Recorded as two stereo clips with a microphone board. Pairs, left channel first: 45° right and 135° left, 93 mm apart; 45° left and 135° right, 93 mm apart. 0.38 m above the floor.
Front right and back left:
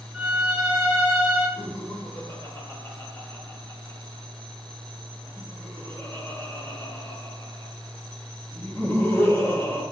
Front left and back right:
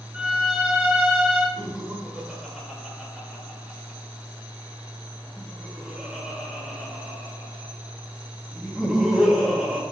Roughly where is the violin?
Behind.